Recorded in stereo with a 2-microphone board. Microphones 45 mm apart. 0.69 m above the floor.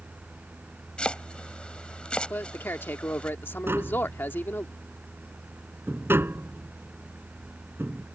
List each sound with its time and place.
1.0 s chopping: 25° left (ahead or behind)
2.3 s a man speaking: 55° left (ahead or behind)
3.7 s tapping: 65° right (ahead or behind)